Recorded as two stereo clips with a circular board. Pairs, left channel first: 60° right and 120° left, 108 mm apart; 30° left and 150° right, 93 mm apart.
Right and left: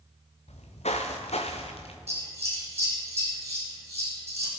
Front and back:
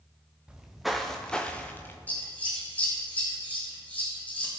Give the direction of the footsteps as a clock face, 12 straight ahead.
2 o'clock.